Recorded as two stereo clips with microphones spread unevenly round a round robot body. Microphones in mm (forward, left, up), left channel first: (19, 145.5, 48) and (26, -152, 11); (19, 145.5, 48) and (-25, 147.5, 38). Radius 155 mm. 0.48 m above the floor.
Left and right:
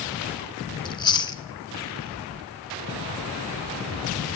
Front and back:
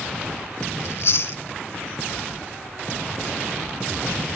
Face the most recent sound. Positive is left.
turn(degrees=15)